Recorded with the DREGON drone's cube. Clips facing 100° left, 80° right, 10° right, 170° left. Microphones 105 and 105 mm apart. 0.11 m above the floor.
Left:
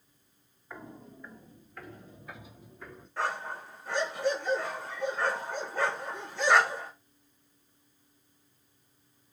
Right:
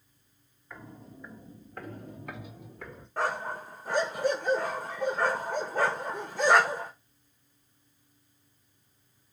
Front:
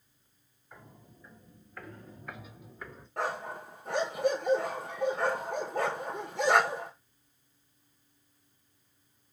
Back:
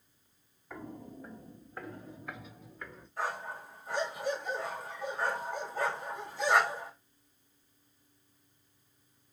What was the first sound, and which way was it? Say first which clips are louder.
Footsteps: left 1 dB, back 10 dB; 170° left.